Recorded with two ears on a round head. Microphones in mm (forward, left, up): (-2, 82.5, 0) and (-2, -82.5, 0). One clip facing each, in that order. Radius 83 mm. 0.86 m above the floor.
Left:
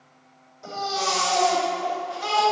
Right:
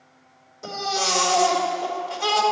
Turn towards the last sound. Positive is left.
turn(degrees=-65)  # may be behind; listen again after turning